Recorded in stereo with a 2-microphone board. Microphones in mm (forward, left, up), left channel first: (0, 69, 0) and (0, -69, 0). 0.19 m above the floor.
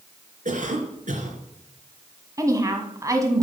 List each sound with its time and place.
0.5 s a cough: 60° right (ahead or behind), 2.5 m
2.4 s a woman speaking: 25° right (ahead or behind), 1.3 m